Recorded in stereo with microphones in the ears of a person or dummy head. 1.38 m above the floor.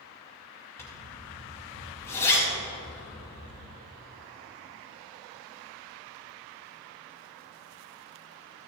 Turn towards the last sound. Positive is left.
turn(degrees=10)  # may be behind; listen again after turning